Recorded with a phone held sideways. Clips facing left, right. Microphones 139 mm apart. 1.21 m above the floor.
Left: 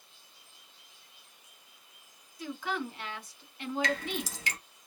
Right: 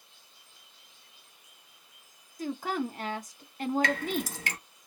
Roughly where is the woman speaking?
Right.